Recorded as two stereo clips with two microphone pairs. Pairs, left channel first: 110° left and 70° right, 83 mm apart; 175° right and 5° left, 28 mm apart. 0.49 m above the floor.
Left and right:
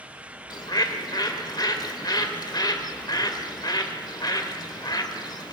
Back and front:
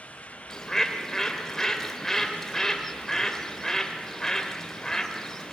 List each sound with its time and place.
0.5 s a bird: 110° left, 2.5 m